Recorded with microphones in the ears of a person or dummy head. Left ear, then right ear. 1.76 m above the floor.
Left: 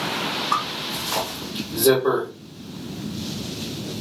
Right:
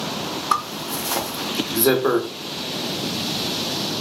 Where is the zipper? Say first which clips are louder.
Right 1 dB; 55° right (ahead or behind), 0.7 m.